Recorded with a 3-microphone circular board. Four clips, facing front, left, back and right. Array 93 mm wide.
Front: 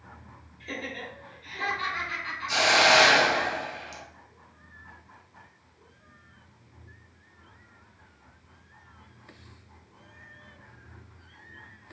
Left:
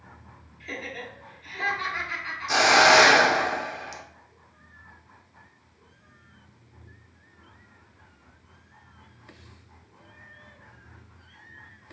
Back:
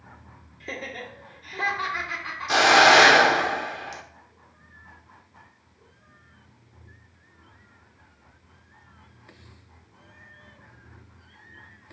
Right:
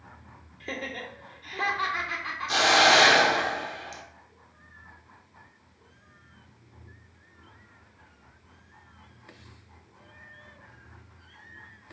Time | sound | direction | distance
0.6 | laughter | 130° right | 2.5 m
2.5 | a hiss | 165° left | 0.8 m